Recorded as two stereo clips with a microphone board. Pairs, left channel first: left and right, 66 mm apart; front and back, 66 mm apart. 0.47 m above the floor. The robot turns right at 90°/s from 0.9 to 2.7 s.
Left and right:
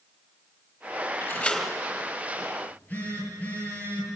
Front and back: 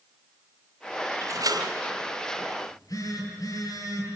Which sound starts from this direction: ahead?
A phone buzzing, at 2.6 s.